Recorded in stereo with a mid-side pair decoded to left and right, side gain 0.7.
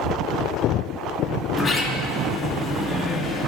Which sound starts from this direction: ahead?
A sliding door, at 1.5 s.